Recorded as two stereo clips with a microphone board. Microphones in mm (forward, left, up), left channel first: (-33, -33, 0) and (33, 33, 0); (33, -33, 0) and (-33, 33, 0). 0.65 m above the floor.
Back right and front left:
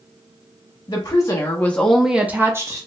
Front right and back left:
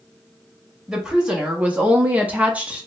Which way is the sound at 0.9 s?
150° right.